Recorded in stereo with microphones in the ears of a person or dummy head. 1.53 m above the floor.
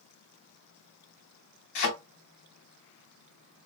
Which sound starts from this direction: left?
A thud, at 1.8 s.